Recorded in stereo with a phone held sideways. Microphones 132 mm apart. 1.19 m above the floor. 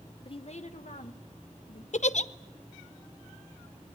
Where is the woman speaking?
40° left (ahead or behind), 0.9 m; by 1.8 s 75° left (ahead or behind), 2 m.